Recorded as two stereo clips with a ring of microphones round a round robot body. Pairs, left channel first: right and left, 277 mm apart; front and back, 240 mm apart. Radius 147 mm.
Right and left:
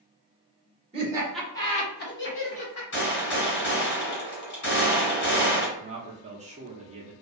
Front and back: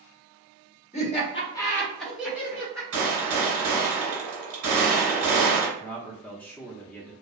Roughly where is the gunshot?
Behind right.